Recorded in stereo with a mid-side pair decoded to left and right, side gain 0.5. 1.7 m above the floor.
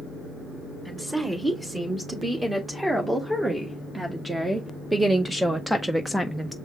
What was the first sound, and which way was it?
A woman speaking, 15° right.